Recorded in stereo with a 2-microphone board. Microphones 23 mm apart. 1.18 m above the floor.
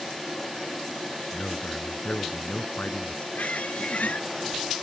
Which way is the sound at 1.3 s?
55° left (ahead or behind).